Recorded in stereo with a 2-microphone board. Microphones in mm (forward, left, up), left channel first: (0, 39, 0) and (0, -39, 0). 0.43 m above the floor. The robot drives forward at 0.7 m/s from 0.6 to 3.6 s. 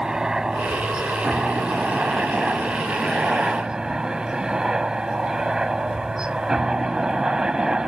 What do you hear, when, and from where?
0.0 s a helicopter: 10° right (ahead or behind)